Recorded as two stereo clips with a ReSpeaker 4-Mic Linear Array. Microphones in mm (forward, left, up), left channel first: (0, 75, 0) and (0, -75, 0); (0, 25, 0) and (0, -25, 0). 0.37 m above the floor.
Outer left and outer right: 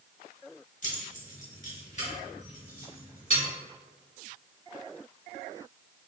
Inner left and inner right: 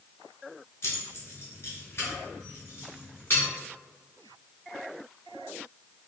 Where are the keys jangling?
55° left (ahead or behind), 1.0 m; by 3.4 s 45° left (ahead or behind), 2 m.